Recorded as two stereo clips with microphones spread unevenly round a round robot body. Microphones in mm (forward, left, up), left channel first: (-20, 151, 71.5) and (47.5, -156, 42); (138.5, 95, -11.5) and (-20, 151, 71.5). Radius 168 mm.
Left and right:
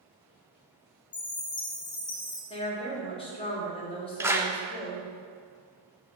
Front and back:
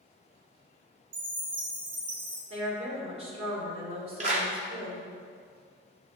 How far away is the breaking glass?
I don't hear breaking glass.